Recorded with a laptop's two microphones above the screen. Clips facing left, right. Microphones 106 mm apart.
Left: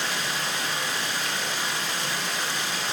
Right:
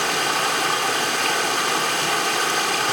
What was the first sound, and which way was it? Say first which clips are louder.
Running water: right 8 dB; 80° right.